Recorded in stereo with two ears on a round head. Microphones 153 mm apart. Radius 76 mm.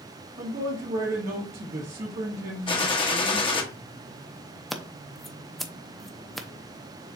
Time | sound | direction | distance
0.4 | a man speaking | 45° right (ahead or behind) | 1.2 m
2.7 | a gunshot | 30° left (ahead or behind) | 0.8 m
4.7 | scissors | centre (ahead or behind) | 0.6 m